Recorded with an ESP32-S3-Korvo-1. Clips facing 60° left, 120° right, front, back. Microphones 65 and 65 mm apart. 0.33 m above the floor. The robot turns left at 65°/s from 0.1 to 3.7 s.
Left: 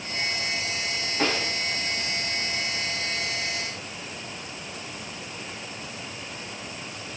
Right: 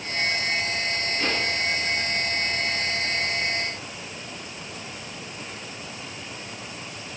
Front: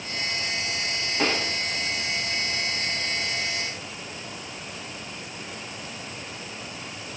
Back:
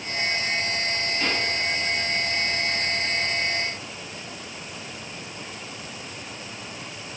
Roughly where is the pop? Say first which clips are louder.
Left 2 dB, front 3 dB; ahead.